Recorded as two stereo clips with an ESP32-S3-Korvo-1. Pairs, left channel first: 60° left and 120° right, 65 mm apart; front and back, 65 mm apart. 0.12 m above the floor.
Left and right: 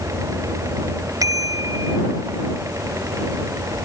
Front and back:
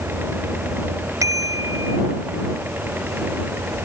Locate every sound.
1.2 s a bicycle bell: 150° right